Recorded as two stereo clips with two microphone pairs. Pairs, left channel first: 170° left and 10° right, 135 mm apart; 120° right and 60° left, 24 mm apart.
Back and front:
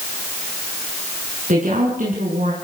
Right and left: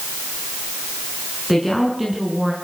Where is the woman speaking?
25° right, 5 m; by 2.5 s 15° right, 4.5 m.